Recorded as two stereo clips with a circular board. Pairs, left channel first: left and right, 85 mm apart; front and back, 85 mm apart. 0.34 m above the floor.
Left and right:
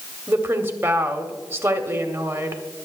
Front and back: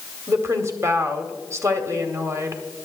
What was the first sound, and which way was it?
A woman speaking, 145° right.